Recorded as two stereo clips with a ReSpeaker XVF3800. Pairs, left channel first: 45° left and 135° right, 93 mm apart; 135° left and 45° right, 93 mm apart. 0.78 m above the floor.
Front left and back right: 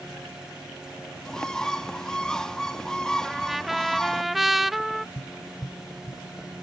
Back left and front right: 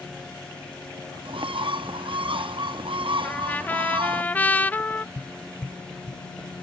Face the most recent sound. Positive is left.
turn(degrees=90)